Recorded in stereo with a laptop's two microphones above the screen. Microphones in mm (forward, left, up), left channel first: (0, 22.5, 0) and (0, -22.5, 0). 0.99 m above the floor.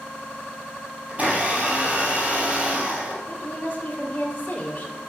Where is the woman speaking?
35° left (ahead or behind), 2.5 m.